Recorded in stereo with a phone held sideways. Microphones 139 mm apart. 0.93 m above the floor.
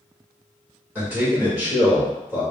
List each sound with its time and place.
0.9 s a man speaking: 15° right (ahead or behind), 1.3 m